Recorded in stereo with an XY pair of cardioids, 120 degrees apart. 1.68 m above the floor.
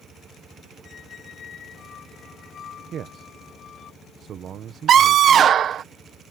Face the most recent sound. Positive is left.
turn(degrees=-50)